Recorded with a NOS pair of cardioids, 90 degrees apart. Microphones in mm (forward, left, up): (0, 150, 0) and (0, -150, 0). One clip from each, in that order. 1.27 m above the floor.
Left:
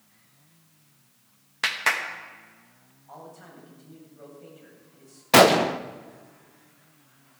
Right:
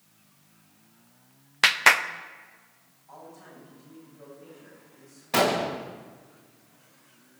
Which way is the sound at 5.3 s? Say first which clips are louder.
Left 8 dB; 45° left.